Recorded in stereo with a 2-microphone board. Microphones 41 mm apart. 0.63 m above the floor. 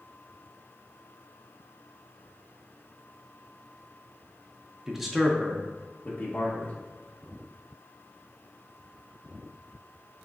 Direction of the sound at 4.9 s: 10° right (ahead or behind).